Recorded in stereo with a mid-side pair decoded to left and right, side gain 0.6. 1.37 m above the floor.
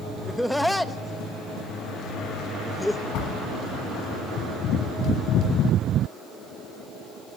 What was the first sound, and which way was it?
Laughter, straight ahead.